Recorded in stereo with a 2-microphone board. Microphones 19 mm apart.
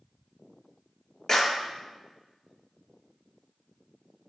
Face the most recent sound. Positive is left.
turn(degrees=30)  # may be behind; listen again after turning